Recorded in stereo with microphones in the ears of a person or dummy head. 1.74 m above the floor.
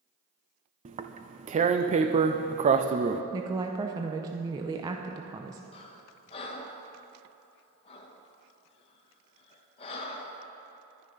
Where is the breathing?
30° left (ahead or behind), 1.0 m.